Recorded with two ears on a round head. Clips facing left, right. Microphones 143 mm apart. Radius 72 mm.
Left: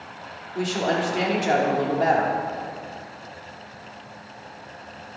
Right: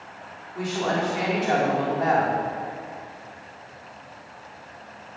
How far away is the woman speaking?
About 2.5 m.